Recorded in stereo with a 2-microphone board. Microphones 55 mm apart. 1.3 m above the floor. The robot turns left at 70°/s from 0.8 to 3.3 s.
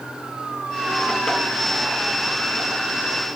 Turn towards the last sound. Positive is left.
No sound to turn to.